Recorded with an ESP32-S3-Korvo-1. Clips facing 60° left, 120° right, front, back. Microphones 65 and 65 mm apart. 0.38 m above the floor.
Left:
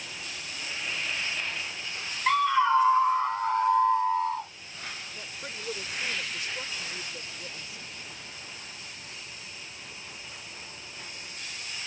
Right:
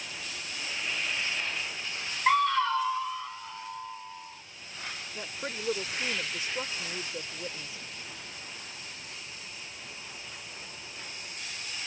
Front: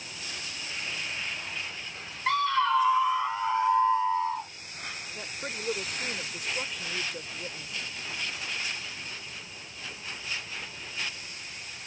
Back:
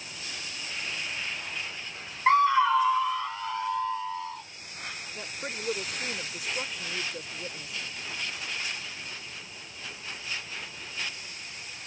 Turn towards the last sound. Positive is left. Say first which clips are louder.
# right 3 dB, back 1 dB
turn(degrees=-95)